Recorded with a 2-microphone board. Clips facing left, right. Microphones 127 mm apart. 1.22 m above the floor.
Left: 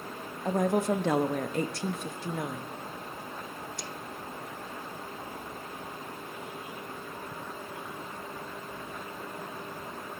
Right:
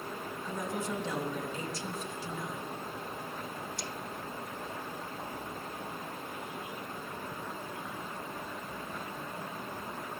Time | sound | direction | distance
0.5 | a woman speaking | 70° left (ahead or behind) | 1.5 m